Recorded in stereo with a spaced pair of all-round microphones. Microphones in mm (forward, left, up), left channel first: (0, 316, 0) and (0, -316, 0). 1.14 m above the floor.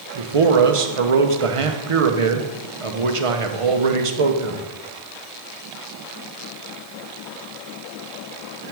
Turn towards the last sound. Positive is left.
turn(degrees=-55)  # may be behind; listen again after turning